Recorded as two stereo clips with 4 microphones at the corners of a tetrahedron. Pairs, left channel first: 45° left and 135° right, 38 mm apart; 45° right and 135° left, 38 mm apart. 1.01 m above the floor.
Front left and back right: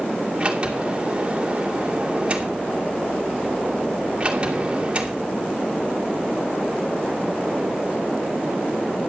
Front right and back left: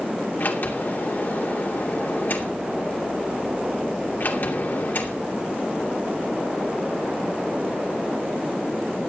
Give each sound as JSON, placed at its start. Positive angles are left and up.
{"t": 0.4, "sound": "a sliding door", "azimuth_deg": -75, "distance_m": 2.5}